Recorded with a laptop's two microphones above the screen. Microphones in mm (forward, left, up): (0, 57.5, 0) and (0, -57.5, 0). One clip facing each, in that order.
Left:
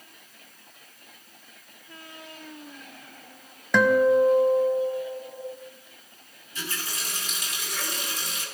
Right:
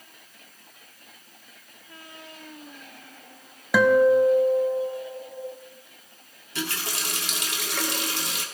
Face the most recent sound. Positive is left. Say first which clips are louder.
# right 5 dB
turn(degrees=-75)  # may be behind; listen again after turning